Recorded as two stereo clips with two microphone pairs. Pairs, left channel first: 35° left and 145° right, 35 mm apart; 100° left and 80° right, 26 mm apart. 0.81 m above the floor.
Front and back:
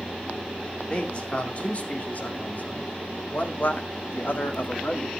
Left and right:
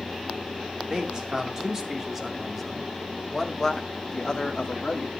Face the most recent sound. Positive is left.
turn(degrees=50)